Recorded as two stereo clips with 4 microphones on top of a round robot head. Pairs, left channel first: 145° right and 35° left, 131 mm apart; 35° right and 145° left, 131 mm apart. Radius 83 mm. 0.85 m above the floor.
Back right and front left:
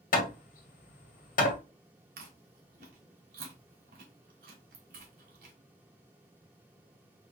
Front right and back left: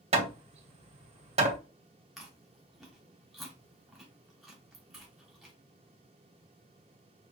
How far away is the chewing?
About 1.3 m.